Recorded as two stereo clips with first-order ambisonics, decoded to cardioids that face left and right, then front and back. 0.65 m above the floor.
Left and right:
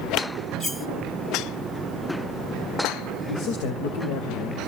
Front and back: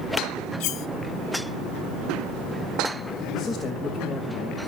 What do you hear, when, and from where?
0.6 s cutlery clinking: 15° left, 1.5 m
3.3 s a man speaking: 75° left, 3 m